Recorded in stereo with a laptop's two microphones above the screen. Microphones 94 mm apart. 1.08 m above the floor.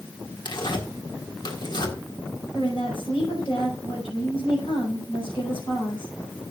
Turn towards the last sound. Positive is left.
turn(degrees=65)  # may be behind; listen again after turning